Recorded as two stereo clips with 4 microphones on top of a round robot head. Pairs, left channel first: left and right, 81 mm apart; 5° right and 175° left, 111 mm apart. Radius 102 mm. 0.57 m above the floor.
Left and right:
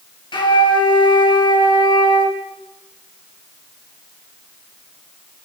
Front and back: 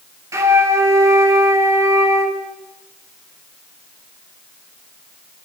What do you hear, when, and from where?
0.3 s a flute: 115° left, 4.5 m